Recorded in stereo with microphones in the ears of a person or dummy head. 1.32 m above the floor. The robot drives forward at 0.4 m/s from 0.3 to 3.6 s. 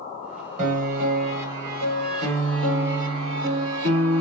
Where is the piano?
45° right (ahead or behind), 1.8 m; by 4.2 s 75° right (ahead or behind), 1.3 m.